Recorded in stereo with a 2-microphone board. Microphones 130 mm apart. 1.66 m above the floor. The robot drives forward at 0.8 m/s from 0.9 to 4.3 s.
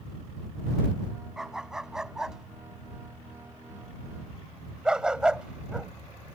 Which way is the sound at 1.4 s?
5° right (ahead or behind).